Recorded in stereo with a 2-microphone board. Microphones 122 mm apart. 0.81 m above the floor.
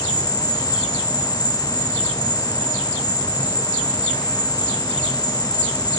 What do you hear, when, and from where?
0.0 s an insect: 40° left (ahead or behind), 5 m